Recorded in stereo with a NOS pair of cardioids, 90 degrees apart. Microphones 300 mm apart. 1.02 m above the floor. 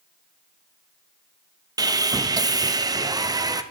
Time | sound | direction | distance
1.8 | sawing | 15° right | 0.6 m